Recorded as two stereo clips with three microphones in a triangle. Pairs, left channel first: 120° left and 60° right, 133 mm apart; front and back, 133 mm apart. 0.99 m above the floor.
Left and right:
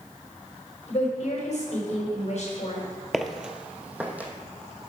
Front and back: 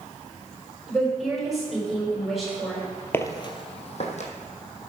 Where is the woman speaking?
90° left, 4.5 m.